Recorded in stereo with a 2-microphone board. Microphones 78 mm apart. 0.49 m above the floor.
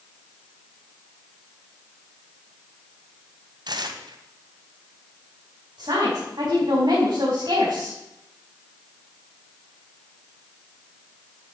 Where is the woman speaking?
70° right (ahead or behind), 4 m.